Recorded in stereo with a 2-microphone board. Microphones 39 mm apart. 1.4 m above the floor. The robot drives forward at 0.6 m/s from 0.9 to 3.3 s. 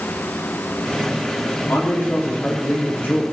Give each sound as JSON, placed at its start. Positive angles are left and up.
{"t": 1.7, "sound": "a man speaking", "side_deg": 70, "distance_m": 4.0}